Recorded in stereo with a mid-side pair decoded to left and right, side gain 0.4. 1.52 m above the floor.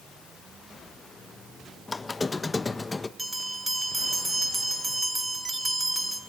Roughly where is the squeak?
Ahead left.